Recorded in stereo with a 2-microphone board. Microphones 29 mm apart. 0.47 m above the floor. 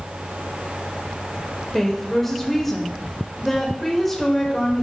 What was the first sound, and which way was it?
A woman speaking, 10° left (ahead or behind).